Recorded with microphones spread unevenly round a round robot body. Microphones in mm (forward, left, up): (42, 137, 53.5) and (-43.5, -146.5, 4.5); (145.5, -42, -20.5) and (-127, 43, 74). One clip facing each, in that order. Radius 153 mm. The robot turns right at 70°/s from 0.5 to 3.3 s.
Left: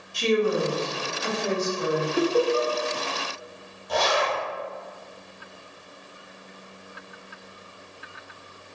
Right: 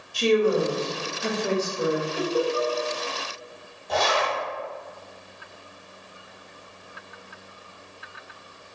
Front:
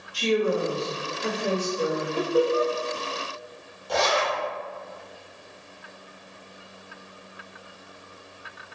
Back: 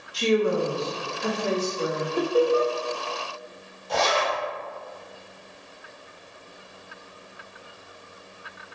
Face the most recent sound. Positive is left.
turn(degrees=-5)